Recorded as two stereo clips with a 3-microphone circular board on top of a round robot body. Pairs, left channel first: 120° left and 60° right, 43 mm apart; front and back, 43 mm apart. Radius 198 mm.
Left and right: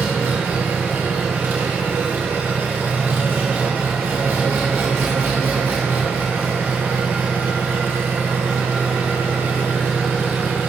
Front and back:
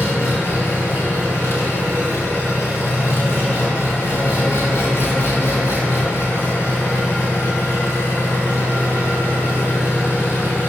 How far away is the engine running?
About 2 m.